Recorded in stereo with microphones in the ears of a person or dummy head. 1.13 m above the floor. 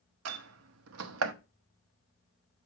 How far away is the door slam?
About 0.9 m.